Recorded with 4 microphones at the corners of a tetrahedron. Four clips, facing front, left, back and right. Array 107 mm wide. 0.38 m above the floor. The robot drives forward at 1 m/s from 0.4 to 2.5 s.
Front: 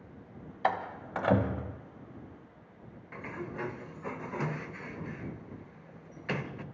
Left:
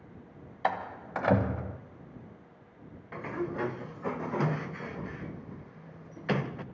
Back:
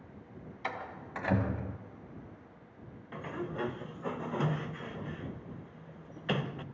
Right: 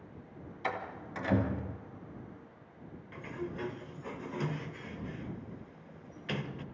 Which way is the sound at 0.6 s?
45° left.